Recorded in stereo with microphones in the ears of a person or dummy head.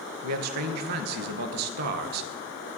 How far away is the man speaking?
About 0.8 m.